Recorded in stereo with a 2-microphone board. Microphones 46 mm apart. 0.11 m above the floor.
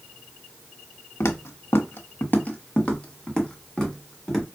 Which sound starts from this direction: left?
Footsteps, at 1.2 s.